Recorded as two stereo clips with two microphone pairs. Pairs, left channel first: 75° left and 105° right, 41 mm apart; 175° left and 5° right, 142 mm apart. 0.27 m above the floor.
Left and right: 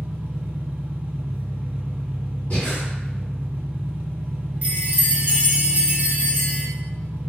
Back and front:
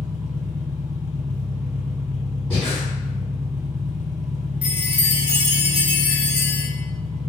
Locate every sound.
0.0 s an engine running: 70° right, 1.2 m
2.5 s breathing: 75° left, 1.8 m
4.6 s a chime: 80° right, 0.7 m